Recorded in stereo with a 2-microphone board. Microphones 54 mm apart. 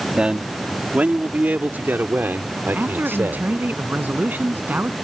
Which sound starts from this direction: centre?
A man speaking, at 0.2 s.